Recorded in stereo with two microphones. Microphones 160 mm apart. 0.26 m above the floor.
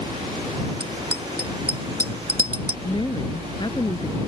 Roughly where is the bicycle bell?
Right.